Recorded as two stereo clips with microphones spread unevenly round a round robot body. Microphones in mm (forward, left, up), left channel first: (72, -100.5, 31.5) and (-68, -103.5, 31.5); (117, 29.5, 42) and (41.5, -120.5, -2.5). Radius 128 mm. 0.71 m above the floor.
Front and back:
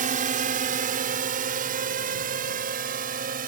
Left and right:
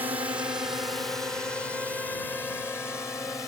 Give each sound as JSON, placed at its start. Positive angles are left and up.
{"t": 0.0, "sound": "a drone", "azimuth_deg": 170}